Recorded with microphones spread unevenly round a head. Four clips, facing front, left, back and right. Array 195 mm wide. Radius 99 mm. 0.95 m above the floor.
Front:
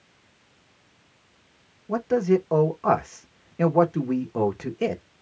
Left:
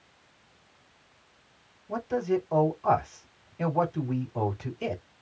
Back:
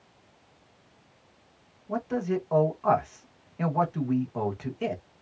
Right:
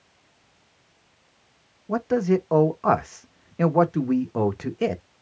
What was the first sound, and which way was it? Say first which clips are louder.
A man speaking: right 6 dB, front 7 dB; 50° right.